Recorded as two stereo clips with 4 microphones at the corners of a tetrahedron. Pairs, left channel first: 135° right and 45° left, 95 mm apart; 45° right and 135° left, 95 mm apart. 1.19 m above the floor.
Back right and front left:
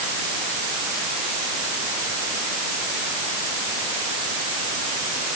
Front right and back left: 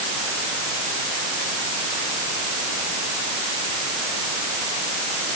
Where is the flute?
No flute in this recording.